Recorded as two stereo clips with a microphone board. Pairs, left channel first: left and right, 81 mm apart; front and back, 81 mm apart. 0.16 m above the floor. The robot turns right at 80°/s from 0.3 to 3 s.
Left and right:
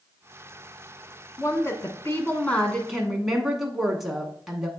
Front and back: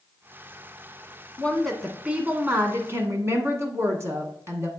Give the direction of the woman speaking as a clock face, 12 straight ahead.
10 o'clock.